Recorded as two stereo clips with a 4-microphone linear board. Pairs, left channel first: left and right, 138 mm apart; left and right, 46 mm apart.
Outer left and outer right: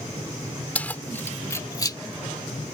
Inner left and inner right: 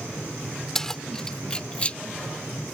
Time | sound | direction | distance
0.8 | keys jangling | 10° left (ahead or behind) | ?